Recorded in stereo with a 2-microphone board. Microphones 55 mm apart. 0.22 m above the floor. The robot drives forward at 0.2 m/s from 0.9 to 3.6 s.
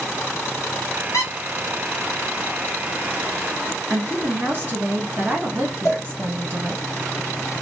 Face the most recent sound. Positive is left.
turn(degrees=65)  # may be behind; listen again after turning